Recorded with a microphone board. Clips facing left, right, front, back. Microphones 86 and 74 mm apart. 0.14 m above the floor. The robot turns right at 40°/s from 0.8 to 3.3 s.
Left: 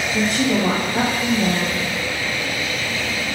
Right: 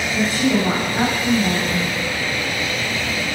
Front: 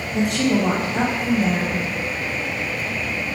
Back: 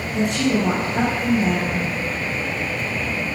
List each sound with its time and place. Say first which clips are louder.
0.1 s a woman speaking: right 1 dB, front 1 dB; 85° left, 3 m; by 1.8 s 130° left, 3 m